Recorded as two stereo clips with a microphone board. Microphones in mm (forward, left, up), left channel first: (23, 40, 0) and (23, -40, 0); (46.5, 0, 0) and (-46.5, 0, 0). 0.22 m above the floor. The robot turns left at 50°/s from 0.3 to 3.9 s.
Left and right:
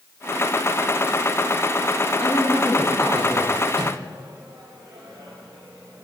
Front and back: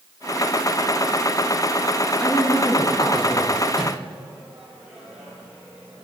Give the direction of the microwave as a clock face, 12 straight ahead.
3 o'clock.